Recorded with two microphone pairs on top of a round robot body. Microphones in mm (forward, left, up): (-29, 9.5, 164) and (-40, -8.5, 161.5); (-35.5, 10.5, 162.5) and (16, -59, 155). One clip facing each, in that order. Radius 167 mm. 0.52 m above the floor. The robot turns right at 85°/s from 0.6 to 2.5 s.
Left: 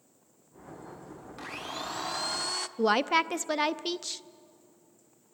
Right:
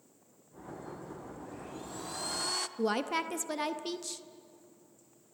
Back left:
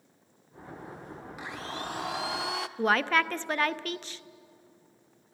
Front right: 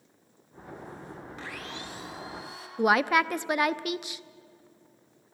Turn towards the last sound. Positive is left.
turn(degrees=10)